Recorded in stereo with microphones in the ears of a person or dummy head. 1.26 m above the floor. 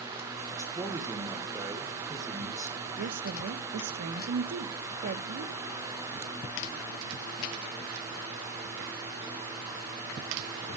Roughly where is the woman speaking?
Right.